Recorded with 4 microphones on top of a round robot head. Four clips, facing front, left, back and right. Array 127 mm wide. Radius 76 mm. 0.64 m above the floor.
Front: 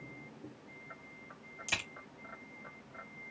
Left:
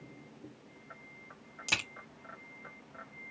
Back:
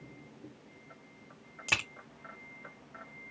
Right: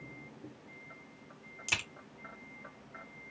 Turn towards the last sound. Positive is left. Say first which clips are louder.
# left 2 dB, back 5 dB
turn(degrees=160)